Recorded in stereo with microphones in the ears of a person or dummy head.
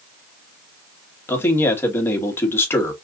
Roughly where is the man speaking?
Centre.